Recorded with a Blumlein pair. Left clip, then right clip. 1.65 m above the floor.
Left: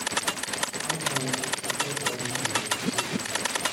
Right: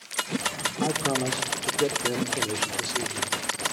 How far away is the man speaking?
About 5 m.